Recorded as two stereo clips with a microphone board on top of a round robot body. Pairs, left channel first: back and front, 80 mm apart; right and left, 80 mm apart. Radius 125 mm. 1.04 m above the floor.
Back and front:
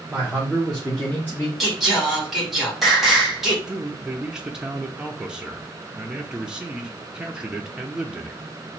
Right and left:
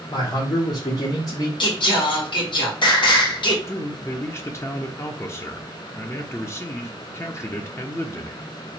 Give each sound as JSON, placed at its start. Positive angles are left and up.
{"t": 0.1, "sound": "a man speaking", "azimuth_deg": -75, "distance_m": 1.5}
{"t": 1.6, "sound": "singing", "azimuth_deg": -85, "distance_m": 1.8}
{"t": 3.7, "sound": "a man speaking", "azimuth_deg": -75, "distance_m": 0.8}